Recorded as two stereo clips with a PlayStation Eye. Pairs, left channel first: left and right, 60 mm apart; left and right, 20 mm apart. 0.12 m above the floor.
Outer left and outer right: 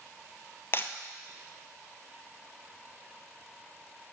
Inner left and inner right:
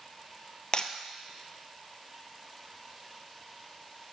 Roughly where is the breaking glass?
Left.